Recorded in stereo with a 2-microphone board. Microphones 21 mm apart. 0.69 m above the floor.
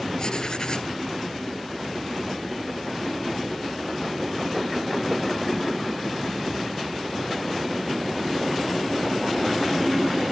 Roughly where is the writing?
Left.